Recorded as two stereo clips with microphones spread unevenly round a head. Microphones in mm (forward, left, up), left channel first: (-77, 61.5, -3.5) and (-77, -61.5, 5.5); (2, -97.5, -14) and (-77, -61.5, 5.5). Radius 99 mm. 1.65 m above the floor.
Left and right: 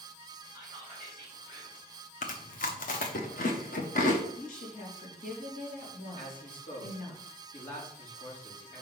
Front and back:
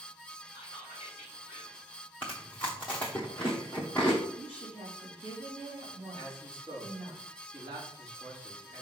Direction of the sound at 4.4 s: 100° left.